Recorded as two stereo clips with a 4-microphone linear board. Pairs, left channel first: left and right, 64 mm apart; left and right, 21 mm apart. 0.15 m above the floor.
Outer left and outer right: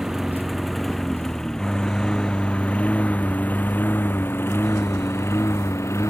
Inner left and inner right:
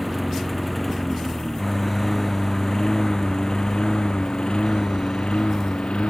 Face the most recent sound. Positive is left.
turn(degrees=45)  # may be behind; listen again after turning